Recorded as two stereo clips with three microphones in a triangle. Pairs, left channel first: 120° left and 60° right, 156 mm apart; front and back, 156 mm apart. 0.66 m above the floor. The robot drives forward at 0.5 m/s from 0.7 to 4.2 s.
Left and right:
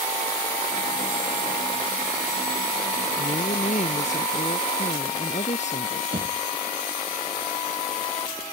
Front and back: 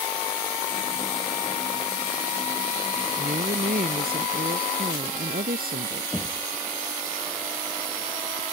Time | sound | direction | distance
3.2 | a woman speaking | 160° left | ?
6.1 | knocking | 85° right | ?